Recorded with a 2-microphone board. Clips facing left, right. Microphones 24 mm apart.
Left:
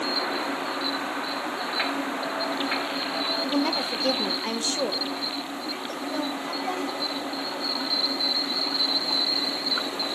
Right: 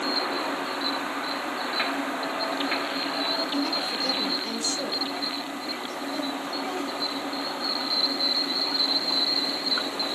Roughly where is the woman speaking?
Left.